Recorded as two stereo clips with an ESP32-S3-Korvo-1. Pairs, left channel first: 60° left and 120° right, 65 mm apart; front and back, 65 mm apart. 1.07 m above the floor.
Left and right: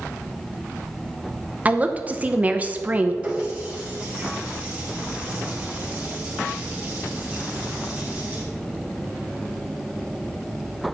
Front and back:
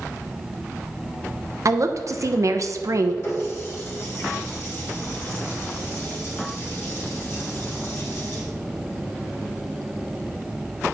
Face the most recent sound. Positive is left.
turn(degrees=-50)